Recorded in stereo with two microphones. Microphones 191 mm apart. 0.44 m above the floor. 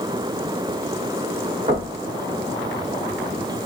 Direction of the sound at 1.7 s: 40° right (ahead or behind).